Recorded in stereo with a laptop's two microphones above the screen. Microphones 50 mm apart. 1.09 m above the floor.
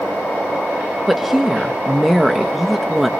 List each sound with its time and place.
1.1 s a woman speaking: 5° right (ahead or behind), 1.1 m